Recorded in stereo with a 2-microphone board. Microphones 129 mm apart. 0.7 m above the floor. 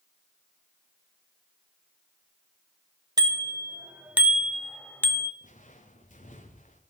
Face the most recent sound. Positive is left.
turn(degrees=80)